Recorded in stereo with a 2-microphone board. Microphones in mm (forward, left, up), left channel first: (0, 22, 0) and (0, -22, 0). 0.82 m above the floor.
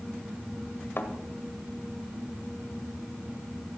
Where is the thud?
55° left (ahead or behind), 1.2 m.